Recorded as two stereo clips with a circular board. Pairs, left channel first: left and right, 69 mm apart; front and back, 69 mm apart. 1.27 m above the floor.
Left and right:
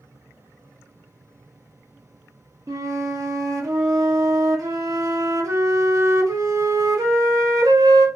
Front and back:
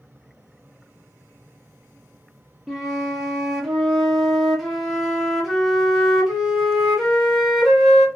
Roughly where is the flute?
Right.